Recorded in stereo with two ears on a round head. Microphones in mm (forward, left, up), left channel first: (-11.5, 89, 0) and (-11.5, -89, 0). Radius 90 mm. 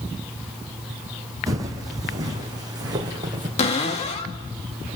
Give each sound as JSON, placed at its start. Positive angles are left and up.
{"t": 1.5, "sound": "footsteps", "side_deg": -20, "distance_m": 4.0}
{"t": 3.6, "sound": "a cupboard door", "side_deg": 30, "distance_m": 2.0}